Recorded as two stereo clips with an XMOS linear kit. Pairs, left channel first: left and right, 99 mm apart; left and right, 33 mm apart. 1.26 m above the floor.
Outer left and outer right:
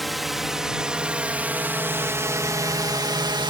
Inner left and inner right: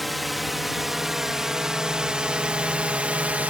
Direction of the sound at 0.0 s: Centre (ahead or behind).